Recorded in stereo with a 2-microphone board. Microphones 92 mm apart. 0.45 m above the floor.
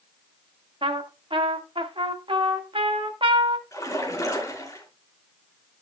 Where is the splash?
35° left (ahead or behind), 4 m.